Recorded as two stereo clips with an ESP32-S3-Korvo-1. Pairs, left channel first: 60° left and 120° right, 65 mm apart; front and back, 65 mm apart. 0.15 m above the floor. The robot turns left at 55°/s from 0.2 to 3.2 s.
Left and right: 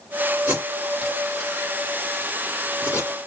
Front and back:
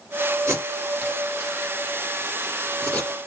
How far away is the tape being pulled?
About 1.8 m.